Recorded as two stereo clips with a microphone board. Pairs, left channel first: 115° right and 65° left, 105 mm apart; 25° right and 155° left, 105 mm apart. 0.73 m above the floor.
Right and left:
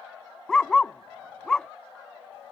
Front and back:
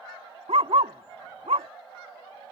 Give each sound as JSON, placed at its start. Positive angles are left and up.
{"t": 0.5, "sound": "a dog barking", "azimuth_deg": 165}